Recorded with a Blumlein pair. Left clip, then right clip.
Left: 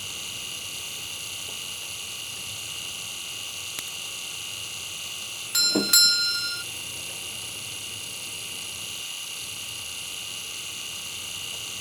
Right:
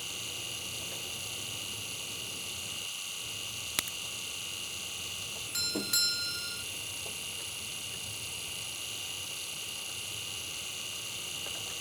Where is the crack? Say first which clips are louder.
Even; 15° right.